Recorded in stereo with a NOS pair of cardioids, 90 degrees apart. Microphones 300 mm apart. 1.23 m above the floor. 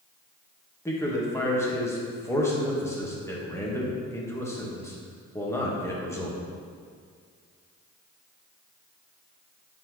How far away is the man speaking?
About 1.7 m.